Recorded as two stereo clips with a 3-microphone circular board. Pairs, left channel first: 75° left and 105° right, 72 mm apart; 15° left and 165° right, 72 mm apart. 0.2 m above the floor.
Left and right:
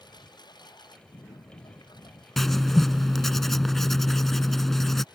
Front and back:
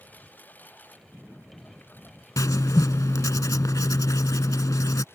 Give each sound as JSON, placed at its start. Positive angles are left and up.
{"t": 0.0, "sound": "a lawn mower", "azimuth_deg": 80}
{"t": 2.4, "sound": "writing", "azimuth_deg": -10}